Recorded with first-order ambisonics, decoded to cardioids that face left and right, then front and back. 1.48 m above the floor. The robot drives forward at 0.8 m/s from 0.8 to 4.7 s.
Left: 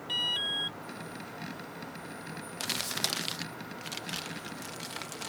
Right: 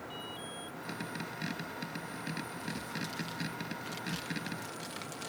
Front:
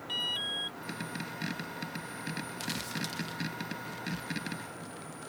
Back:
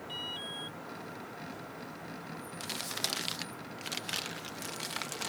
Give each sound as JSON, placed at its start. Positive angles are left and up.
{"t": 0.1, "sound": "an alarm", "azimuth_deg": 65}
{"t": 2.6, "sound": "crumpling", "azimuth_deg": 80}